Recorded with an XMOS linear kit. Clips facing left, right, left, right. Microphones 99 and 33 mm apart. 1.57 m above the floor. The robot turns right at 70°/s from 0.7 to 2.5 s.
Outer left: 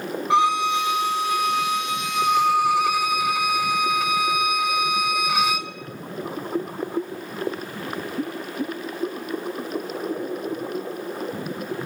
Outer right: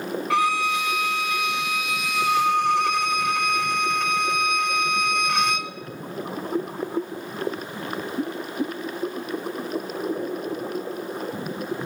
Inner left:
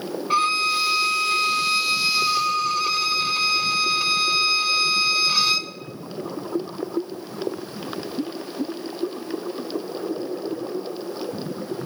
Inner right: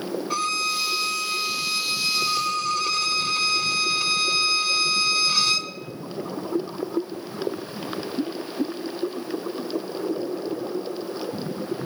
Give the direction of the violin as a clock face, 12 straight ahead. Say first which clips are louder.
Outer left 3 dB, inner left 6 dB; 11 o'clock.